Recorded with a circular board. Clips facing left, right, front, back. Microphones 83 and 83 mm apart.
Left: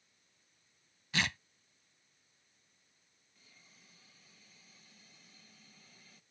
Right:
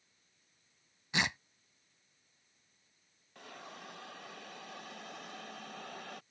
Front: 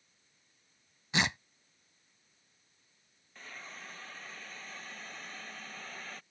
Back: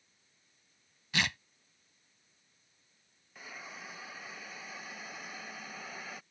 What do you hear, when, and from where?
1.1 s tearing paper: 40° right
3.4 s a hiss: 100° right